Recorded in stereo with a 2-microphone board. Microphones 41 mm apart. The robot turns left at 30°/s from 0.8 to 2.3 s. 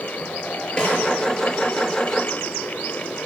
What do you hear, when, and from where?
0.8 s a snare drum: 25° left (ahead or behind), 3 m; by 1.0 s 30° left (ahead or behind), 3 m